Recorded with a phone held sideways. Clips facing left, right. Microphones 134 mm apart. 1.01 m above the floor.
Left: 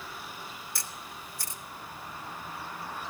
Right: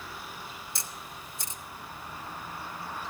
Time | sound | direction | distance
0.8 | a camera shutter | 20° right (ahead or behind) | 1.4 m